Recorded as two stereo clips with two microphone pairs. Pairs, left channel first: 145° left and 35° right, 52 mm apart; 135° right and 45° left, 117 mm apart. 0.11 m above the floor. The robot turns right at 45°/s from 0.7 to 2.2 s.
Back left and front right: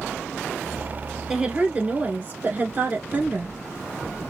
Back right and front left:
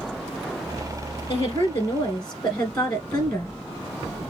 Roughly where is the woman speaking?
Right.